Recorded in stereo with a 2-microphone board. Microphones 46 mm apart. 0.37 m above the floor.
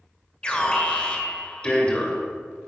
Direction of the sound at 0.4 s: 20° left (ahead or behind).